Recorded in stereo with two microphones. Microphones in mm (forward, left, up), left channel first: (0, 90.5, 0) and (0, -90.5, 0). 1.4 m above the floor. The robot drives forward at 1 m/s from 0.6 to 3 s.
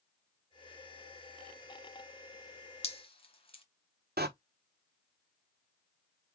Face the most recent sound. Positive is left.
turn(degrees=-60)  # may be behind; listen again after turning